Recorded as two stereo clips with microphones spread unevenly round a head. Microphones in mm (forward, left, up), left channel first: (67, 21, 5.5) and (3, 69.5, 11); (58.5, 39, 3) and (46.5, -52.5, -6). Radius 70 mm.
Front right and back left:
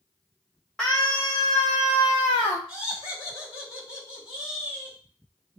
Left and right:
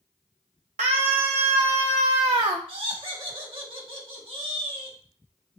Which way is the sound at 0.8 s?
125° right.